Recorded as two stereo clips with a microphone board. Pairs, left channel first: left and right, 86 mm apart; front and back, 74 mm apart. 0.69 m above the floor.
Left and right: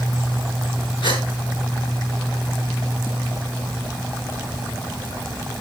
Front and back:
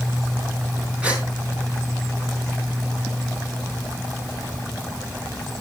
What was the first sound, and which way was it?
A gasp, 105° left.